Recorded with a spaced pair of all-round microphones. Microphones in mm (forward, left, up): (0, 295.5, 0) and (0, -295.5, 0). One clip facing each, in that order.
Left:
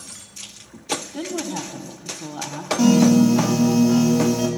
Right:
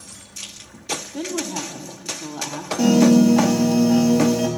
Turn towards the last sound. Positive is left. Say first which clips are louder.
# right 1 dB
turn(degrees=30)  # may be behind; listen again after turning